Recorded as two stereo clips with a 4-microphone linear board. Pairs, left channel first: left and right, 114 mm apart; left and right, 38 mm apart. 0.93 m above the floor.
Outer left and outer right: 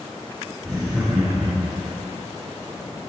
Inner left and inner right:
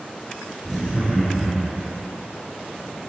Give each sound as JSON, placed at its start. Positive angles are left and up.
{"t": 0.6, "sound": "laughter", "side_deg": -5, "distance_m": 6.5}